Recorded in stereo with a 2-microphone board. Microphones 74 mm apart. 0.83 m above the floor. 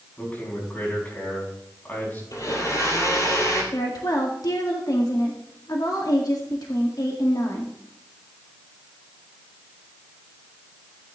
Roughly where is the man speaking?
Left.